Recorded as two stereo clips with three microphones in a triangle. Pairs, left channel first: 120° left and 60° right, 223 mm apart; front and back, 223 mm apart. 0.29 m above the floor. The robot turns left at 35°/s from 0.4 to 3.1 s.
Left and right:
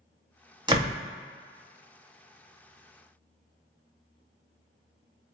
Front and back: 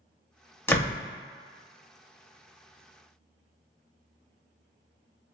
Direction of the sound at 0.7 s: 60° right.